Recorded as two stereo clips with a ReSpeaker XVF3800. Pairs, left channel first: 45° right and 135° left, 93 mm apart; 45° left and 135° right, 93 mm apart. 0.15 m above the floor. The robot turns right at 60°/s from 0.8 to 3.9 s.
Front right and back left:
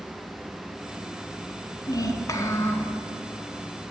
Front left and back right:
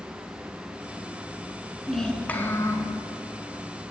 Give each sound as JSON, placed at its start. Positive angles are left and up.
{"t": 1.9, "sound": "a child speaking", "azimuth_deg": -45, "distance_m": 1.2}